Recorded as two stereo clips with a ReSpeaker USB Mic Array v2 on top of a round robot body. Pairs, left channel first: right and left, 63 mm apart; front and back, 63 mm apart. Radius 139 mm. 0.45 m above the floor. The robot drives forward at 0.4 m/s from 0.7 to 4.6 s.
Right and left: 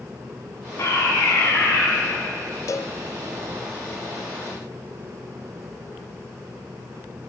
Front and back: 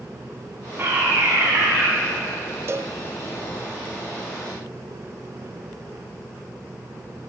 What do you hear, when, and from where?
0.8 s a fire alarm: 130° right, 8.5 m
2.7 s a cowbell: 130° right, 0.7 m; by 3.0 s 135° right, 0.8 m